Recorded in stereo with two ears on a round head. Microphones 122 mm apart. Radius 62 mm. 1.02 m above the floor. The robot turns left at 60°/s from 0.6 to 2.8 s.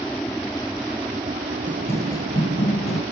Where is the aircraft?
5° left; by 3.1 s 125° right.